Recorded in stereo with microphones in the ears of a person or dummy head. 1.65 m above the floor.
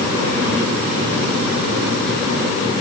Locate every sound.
Only background noise.